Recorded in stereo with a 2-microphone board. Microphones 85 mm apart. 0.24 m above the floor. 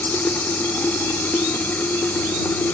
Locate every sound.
0.0 s running water: 20° left (ahead or behind)